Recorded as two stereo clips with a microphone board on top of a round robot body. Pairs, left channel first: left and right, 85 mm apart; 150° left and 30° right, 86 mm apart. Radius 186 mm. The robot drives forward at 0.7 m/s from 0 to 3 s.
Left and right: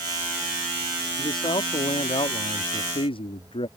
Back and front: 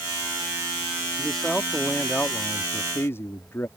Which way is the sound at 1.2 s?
60° left.